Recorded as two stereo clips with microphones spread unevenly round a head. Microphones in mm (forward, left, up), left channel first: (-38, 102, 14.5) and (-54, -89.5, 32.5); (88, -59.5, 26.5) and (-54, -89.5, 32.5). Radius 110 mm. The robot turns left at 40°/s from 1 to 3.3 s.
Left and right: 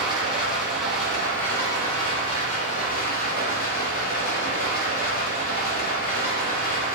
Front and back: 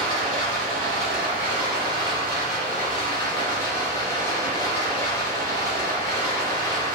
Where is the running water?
175° right, 1.5 m; by 7.0 s 90° left, 1.5 m.